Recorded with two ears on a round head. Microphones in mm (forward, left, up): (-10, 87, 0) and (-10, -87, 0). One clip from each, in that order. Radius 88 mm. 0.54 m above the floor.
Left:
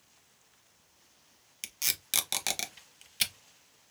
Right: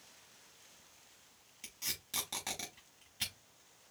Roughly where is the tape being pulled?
Left.